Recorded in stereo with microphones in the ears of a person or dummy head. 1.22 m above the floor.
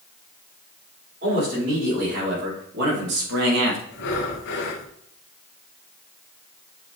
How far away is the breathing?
About 0.8 m.